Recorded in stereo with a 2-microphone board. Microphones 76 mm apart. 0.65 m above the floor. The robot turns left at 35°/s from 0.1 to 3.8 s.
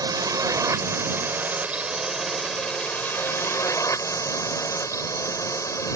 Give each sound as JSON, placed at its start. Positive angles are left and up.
{"t": 0.0, "sound": "a drone", "azimuth_deg": -105}